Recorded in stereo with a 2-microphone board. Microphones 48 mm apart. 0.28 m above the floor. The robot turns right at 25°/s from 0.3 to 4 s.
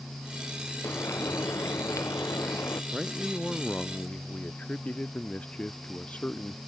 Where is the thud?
No thud in this recording.